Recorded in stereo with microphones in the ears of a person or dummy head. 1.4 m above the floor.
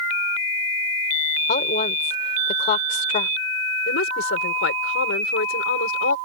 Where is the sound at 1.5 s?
45° left (ahead or behind).